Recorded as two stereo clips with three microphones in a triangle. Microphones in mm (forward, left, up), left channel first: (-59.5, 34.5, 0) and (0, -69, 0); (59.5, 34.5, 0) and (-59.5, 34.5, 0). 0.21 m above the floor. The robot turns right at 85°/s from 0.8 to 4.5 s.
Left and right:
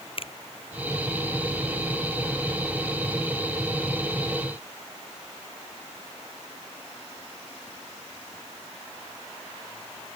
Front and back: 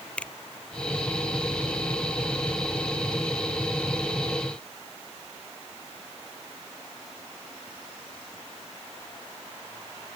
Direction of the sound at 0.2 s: 80° left.